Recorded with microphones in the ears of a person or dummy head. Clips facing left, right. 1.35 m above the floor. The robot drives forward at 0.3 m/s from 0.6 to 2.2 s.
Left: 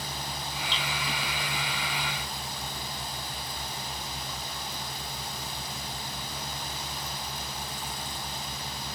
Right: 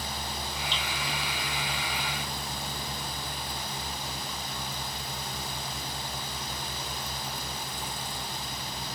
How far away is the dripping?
About 2.0 m.